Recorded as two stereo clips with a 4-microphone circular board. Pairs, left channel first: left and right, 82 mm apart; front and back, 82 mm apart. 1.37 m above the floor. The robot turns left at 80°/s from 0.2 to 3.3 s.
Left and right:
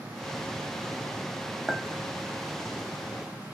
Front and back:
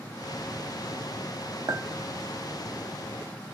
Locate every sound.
1.7 s a clink: 170° right, 0.9 m; by 1.8 s 175° left, 0.9 m